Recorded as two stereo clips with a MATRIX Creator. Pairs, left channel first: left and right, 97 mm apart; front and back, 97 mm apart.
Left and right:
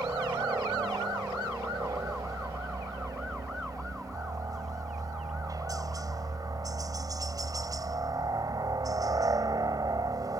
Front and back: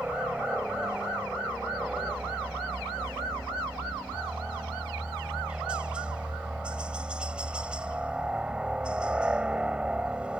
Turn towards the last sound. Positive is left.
turn(degrees=-105)